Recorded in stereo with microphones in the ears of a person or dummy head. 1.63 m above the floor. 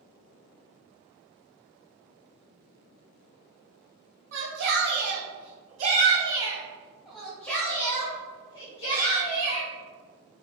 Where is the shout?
70° right (ahead or behind), 1.4 m; by 9.7 s 40° left (ahead or behind), 2.0 m.